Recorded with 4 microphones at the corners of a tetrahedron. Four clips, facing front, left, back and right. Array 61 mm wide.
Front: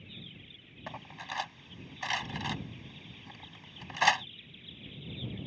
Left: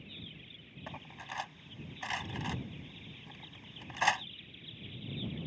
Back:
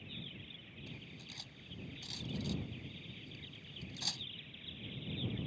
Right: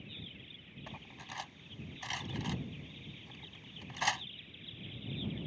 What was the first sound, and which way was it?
Cutlery clinking, 15° left.